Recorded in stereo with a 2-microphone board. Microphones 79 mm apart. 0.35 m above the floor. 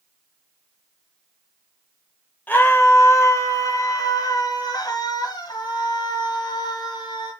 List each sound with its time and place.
2.5 s a scream: 20° left (ahead or behind), 1.1 m; by 7.3 s 65° left (ahead or behind), 3 m